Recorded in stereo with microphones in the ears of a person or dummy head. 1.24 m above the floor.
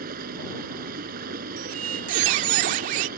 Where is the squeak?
35° right (ahead or behind).